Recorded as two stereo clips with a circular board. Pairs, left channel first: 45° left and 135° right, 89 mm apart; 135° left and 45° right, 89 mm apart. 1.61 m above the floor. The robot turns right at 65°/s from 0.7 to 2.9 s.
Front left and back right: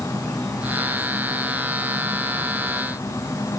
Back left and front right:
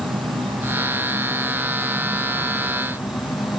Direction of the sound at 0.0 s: 35° right.